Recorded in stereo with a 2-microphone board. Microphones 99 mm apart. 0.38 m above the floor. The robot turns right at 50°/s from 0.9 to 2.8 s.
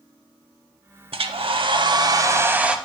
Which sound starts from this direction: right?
A hair dryer, at 1.1 s.